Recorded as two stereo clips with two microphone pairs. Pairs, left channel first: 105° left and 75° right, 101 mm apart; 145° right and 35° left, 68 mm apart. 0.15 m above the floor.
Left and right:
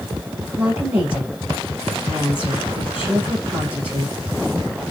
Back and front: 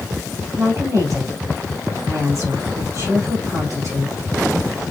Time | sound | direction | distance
0.6 | a woman speaking | 15° right | 2.5 m